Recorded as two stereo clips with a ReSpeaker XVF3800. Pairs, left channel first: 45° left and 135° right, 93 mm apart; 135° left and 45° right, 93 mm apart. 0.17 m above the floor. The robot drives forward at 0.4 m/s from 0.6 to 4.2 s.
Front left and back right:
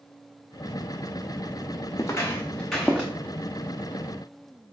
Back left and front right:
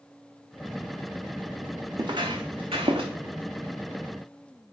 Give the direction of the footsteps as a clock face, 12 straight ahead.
12 o'clock.